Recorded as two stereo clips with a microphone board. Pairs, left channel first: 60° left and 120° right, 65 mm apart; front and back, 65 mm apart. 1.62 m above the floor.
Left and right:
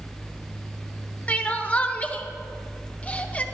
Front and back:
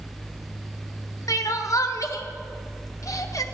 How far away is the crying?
About 1.1 m.